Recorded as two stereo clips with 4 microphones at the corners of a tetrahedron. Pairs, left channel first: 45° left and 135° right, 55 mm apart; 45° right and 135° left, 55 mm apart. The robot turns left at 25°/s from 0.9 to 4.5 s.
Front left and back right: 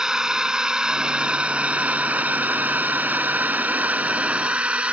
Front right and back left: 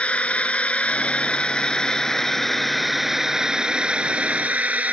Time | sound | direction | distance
0.0 | a drone | 70° right | ?